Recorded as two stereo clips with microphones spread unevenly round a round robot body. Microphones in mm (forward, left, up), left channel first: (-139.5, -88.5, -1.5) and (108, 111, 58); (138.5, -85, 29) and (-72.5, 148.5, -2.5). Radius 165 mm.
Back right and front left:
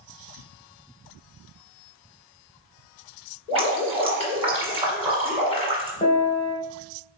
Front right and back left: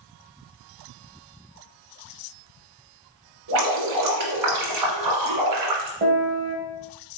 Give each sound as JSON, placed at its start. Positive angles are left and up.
{"t": 3.5, "sound": "dripping", "azimuth_deg": 115, "distance_m": 1.5}
{"t": 6.0, "sound": "a piano", "azimuth_deg": 175, "distance_m": 1.2}